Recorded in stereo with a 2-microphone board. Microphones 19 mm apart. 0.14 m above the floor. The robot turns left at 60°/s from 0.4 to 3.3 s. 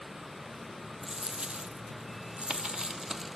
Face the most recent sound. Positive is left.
turn(degrees=-160)